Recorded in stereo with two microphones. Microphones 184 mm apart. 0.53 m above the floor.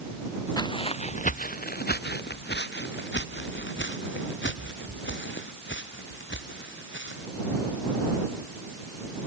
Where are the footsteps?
20° left (ahead or behind); by 7.3 s 85° left.